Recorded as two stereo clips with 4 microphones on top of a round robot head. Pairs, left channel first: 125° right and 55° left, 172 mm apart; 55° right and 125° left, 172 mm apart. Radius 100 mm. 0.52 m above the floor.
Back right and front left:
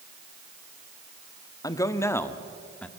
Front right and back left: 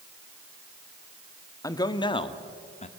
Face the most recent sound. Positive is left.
turn(degrees=-45)